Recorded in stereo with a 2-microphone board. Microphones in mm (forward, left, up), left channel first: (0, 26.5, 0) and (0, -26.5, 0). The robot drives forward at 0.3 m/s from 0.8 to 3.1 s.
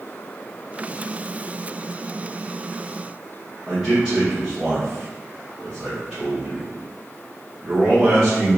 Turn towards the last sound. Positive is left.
turn(degrees=-10)  # may be behind; listen again after turning